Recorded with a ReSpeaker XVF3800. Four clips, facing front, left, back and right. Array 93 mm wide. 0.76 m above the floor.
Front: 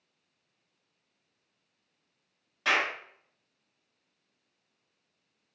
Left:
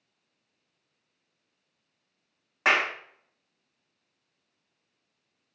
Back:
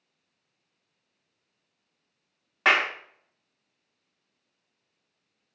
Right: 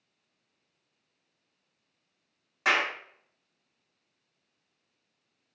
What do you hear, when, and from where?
2.6 s a clap: 150° left, 1.3 m